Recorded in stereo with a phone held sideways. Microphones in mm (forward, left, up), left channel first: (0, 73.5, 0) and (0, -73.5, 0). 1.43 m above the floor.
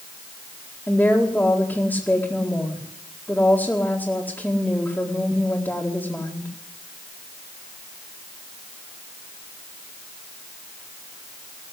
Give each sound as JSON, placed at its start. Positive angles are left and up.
{"t": 0.9, "sound": "a woman speaking", "side_deg": 10, "distance_m": 2.0}